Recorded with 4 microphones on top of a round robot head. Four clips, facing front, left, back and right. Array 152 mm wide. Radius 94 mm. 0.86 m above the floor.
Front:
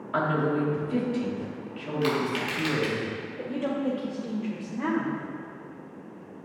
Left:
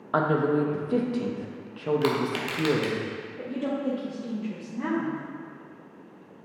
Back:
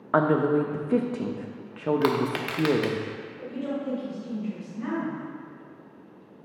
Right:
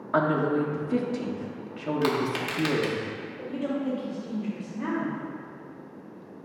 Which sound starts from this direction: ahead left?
A woman speaking, at 3.4 s.